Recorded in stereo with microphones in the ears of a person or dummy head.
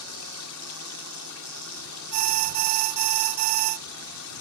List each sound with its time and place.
0.0 s running water: 85° left
2.1 s an alarm: 50° right (ahead or behind)